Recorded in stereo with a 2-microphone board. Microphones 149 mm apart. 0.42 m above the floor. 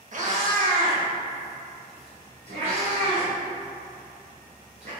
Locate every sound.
0.1 s a cat meowing: 50° right (ahead or behind), 0.6 m; by 4.9 s 45° right (ahead or behind), 3 m